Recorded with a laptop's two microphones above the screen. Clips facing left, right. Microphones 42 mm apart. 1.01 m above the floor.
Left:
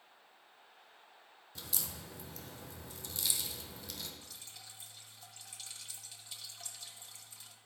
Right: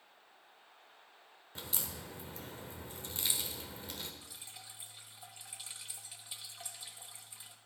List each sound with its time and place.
1.6 s a crack: 30° right (ahead or behind), 0.9 m
4.2 s dripping: 15° right (ahead or behind), 1.0 m